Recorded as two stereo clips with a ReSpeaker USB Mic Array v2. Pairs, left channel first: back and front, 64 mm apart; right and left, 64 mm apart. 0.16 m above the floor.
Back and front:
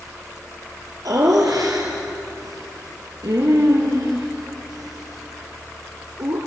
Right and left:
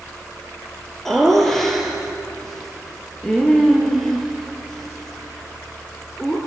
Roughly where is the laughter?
Ahead.